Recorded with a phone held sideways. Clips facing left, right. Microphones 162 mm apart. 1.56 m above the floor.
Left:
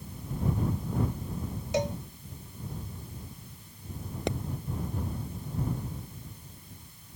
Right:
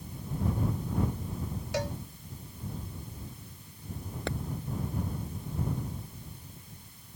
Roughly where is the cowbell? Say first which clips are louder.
Left 4 dB; left.